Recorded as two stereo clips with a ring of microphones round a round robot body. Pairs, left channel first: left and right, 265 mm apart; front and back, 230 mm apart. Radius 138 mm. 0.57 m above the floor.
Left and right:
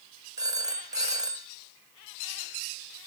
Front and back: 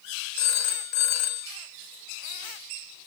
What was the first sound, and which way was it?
A phone ringing, 15° right.